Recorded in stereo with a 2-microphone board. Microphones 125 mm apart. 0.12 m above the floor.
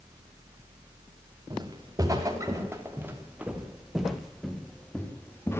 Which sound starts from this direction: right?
Footsteps, at 1.5 s.